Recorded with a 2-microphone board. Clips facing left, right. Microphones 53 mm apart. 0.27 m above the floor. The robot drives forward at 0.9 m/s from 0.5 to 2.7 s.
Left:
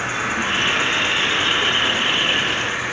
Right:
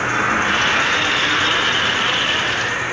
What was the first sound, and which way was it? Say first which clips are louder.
An insect: right 5 dB; 50° right (ahead or behind).